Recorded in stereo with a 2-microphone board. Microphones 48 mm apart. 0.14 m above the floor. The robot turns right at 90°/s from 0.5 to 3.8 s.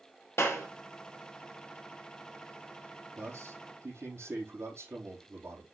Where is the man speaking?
130° right, 4 m; by 5.7 s 75° right, 4 m.